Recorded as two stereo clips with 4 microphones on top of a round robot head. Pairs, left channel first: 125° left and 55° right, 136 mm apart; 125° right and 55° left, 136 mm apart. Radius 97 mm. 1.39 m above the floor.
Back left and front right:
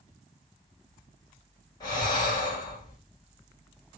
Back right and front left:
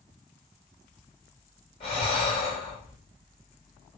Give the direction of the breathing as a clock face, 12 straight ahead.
6 o'clock.